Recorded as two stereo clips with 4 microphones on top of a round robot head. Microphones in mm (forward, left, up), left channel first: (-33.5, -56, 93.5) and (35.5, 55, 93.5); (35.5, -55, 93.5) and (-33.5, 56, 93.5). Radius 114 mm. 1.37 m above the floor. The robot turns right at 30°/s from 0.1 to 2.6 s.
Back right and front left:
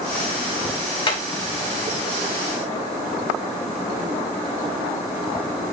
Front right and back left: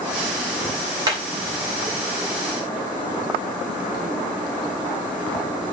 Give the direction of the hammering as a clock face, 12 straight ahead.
6 o'clock.